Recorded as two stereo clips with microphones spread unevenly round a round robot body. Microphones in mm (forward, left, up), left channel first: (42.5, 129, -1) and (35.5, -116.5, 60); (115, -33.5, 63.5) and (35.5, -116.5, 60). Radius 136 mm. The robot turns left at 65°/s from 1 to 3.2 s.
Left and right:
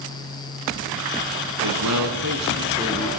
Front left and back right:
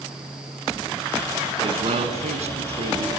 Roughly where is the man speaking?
Right.